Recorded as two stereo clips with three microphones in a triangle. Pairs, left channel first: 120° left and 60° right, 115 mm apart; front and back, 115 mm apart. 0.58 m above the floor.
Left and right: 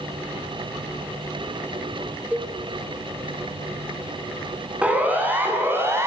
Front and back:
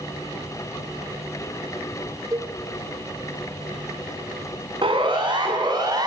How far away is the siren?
About 8 m.